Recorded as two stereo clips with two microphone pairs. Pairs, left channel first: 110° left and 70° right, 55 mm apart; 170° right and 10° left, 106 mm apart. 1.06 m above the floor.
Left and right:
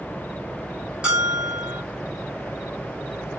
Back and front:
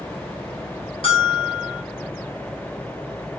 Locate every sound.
1.0 s a bell: 135° right, 1.1 m